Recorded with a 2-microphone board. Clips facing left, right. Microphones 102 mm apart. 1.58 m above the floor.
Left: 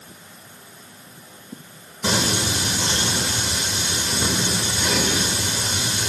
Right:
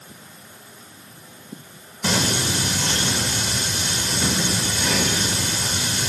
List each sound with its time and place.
2.0 s singing: 25° left (ahead or behind), 2 m